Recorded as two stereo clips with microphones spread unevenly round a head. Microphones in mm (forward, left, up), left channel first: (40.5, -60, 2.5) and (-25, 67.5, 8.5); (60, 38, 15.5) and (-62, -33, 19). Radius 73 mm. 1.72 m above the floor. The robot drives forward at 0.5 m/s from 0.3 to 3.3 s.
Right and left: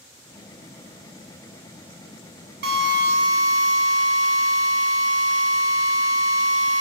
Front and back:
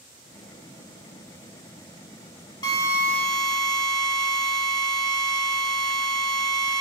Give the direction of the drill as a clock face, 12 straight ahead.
9 o'clock.